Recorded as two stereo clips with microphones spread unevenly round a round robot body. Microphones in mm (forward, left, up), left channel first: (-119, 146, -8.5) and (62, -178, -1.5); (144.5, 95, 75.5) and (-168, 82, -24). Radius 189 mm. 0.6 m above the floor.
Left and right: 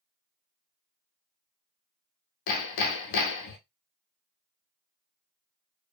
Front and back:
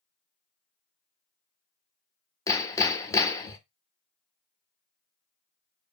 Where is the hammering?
95° left, 0.5 m.